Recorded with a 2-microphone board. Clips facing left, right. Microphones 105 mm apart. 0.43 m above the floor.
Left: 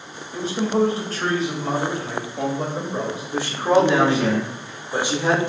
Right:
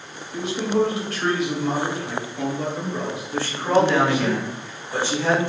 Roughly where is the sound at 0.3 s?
Left.